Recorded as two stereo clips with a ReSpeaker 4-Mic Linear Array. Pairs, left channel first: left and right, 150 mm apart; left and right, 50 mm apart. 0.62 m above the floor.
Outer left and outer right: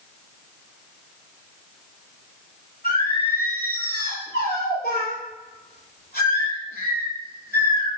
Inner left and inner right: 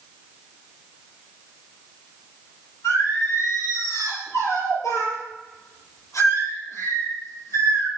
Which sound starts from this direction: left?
Singing, at 2.8 s.